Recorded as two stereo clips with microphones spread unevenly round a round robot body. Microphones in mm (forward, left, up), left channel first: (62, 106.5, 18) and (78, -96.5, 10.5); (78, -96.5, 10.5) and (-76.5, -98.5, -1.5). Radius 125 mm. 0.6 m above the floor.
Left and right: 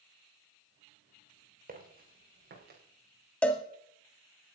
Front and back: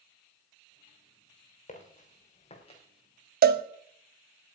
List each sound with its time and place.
1.7 s footsteps: 40° right, 5.5 m; by 2.8 s 50° right, 5 m
3.4 s a cowbell: 175° left, 0.6 m